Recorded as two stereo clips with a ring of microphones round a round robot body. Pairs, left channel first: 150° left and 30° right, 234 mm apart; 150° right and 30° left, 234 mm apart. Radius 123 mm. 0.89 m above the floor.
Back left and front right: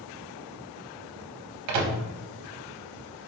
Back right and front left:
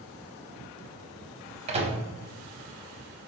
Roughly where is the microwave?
Ahead right.